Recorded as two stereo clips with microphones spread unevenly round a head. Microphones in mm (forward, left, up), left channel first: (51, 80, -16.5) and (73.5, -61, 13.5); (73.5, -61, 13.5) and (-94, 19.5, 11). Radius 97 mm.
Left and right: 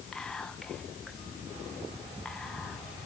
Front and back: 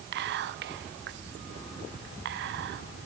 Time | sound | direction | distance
0.1 | whispering | 175° right | 1.1 m